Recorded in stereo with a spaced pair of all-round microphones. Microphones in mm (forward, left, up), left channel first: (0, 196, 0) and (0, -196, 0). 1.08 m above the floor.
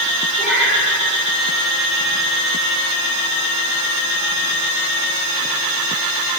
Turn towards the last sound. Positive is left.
turn(degrees=0)  # may be behind; listen again after turning